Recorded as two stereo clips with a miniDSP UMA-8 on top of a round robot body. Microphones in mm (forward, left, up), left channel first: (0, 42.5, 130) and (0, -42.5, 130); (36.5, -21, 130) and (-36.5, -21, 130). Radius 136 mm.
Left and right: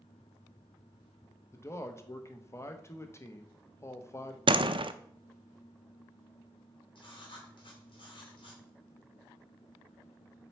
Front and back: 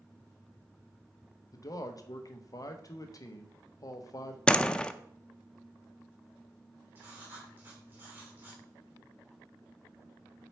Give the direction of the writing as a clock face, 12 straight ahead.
8 o'clock.